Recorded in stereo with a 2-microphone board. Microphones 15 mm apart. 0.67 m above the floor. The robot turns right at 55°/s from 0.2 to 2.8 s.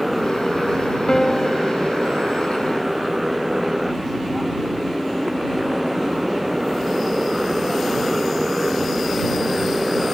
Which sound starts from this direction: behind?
A motorcycle, at 0.0 s.